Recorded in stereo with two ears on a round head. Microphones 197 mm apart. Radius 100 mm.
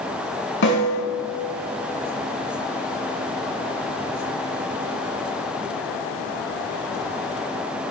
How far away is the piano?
I don't hear a piano.